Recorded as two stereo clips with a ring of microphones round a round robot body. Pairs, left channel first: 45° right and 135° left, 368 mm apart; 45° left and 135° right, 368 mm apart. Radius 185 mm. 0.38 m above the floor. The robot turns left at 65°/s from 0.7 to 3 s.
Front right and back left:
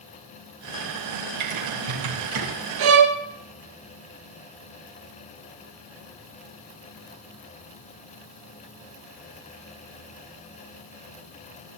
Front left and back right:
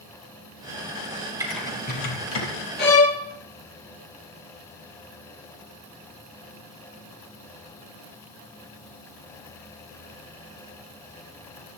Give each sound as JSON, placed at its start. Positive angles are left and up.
{"t": 1.4, "sound": "typing on a keyboard", "azimuth_deg": 145, "distance_m": 5.0}
{"t": 2.8, "sound": "a violin", "azimuth_deg": 110, "distance_m": 2.0}